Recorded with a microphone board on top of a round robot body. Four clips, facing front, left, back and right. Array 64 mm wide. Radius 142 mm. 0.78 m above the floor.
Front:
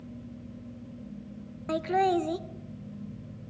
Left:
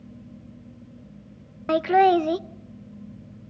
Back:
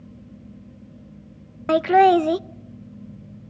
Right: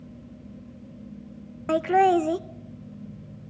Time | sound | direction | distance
1.7 | laughter | 170° left | 0.6 m